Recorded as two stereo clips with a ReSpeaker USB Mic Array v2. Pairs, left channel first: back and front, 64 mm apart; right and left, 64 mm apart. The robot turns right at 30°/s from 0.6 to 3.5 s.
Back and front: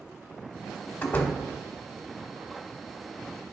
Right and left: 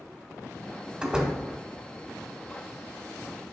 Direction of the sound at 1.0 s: 150° left.